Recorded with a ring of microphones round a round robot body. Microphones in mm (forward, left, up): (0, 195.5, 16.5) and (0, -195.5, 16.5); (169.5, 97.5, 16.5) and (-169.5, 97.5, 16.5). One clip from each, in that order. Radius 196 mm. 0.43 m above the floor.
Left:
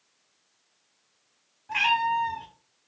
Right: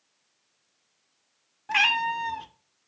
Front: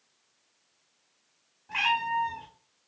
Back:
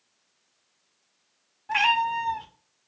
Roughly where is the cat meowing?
Behind right.